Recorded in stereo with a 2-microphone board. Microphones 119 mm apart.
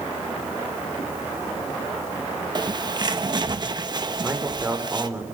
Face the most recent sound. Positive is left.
turn(degrees=-15)  # may be behind; listen again after turning